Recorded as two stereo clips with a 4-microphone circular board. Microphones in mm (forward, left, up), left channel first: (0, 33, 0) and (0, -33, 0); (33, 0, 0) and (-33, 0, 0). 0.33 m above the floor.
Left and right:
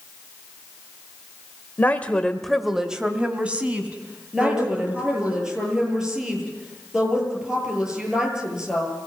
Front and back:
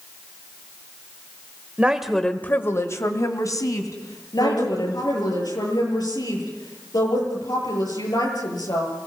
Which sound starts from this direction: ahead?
A woman speaking, at 4.3 s.